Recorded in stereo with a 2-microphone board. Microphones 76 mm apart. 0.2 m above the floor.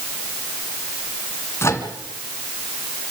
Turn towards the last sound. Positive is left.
turn(degrees=35)  # may be behind; listen again after turning